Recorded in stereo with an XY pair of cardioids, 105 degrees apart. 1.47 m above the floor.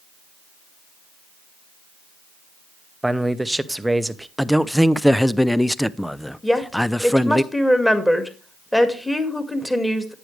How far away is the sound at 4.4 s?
About 0.5 m.